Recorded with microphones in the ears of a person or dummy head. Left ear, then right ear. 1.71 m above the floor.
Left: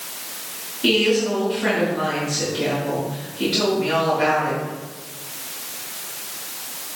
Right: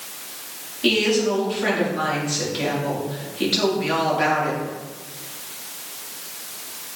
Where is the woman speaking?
25° right (ahead or behind), 4 m.